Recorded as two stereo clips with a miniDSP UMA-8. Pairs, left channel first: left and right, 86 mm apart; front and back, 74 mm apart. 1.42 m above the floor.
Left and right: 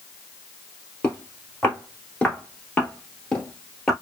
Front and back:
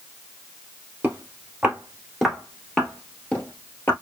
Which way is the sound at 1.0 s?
140° left.